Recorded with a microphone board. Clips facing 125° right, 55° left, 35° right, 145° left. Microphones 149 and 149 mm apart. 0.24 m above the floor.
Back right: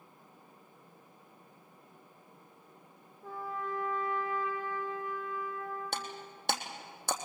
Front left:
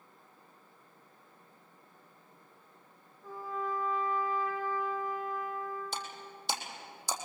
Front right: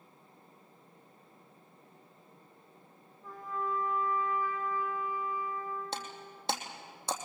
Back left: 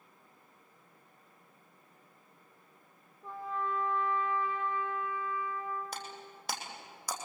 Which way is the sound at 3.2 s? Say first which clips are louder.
Front left 1 dB, back left 1 dB; 150° right.